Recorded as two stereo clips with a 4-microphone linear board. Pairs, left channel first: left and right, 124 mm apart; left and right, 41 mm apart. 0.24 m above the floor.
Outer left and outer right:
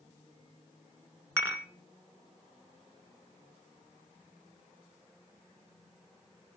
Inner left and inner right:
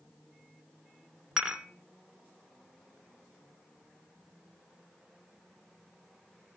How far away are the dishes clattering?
About 1.8 m.